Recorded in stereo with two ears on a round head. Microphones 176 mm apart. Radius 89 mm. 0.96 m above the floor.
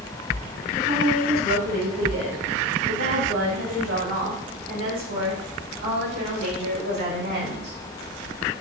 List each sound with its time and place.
0.8 s a woman speaking: 35° right (ahead or behind), 3 m; by 7.8 s 60° right (ahead or behind), 5.5 m